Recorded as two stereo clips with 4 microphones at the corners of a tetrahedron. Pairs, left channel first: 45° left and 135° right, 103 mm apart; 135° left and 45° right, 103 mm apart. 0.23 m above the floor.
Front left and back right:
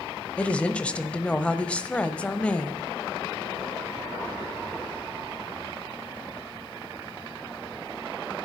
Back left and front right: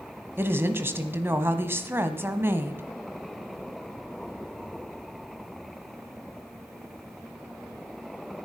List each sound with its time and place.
0.4 s a woman speaking: 20° right, 1.0 m